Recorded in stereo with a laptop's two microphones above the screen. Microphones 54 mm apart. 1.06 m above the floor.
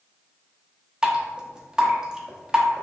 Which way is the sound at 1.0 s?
15° right (ahead or behind).